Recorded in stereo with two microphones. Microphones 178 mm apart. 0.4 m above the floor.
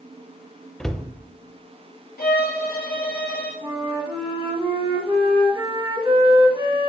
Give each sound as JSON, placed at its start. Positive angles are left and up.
{"t": 0.8, "sound": "a cupboard door", "side_deg": 5, "distance_m": 0.6}
{"t": 2.2, "sound": "a violin", "side_deg": 65, "distance_m": 2.5}
{"t": 3.6, "sound": "a flute", "side_deg": -30, "distance_m": 1.6}